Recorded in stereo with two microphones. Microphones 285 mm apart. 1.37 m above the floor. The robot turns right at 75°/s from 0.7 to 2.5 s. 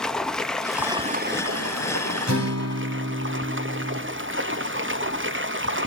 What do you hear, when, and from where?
0.0 s running water: straight behind, 1.1 m; by 5.9 s 45° right, 1.1 m
2.3 s a guitar: 85° right, 4 m; by 4.0 s 75° right (ahead or behind), 4 m